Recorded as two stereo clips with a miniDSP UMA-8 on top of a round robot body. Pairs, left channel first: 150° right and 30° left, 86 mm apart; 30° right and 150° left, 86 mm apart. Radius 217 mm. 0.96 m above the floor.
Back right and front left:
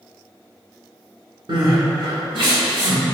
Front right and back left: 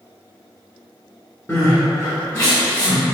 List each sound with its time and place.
1.5 s crying: 20° left, 1.6 m